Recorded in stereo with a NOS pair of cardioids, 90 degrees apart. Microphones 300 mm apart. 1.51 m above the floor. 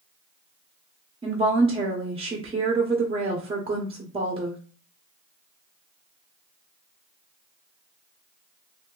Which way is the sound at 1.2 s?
20° right.